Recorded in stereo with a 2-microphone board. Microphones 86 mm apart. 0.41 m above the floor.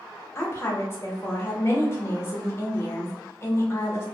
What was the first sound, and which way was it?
A woman speaking, 30° left (ahead or behind).